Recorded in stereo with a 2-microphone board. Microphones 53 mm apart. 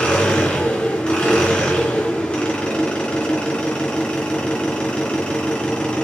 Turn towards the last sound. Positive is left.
turn(degrees=20)  # may be behind; listen again after turning